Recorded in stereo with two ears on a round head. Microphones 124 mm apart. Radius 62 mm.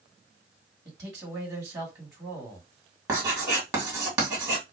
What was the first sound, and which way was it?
A man speaking, 25° right (ahead or behind).